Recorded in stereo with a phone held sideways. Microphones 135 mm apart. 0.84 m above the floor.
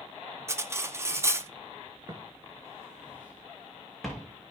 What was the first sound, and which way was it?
Cutlery clinking, 20° right (ahead or behind).